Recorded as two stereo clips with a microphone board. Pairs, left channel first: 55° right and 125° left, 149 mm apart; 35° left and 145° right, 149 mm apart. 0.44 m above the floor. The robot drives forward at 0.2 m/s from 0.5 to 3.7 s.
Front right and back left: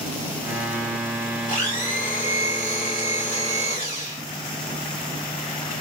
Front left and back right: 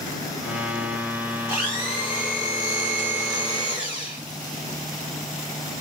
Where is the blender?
70° right, 1.9 m; by 4.2 s 85° right, 1.8 m.